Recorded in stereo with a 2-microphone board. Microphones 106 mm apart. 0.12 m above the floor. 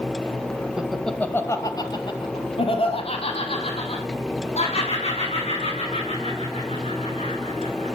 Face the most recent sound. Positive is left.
turn(degrees=85)